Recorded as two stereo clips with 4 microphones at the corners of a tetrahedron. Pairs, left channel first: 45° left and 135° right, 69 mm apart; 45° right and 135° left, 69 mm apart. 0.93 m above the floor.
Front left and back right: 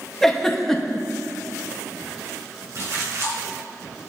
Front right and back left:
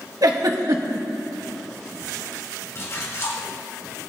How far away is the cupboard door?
I don't hear a cupboard door.